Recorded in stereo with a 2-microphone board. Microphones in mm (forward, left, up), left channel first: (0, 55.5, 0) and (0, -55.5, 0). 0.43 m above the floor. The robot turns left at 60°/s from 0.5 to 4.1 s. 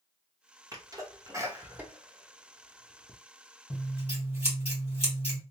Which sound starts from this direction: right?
A sneeze, at 0.7 s.